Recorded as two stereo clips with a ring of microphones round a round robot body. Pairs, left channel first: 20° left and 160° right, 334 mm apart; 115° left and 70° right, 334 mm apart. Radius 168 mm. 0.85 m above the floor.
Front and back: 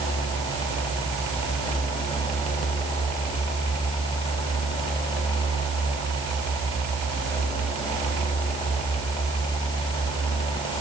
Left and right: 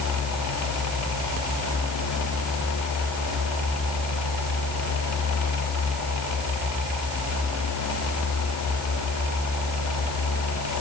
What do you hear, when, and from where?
Only background noise.